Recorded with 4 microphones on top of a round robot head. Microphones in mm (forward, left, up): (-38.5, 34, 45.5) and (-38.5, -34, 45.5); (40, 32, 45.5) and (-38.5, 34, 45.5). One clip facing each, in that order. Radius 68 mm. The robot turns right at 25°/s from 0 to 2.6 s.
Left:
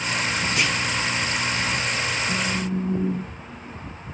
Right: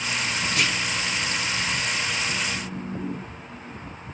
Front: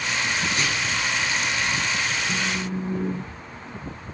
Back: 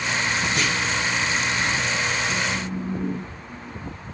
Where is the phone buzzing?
55° left, 1.6 m; by 3.8 s 65° left, 1.6 m.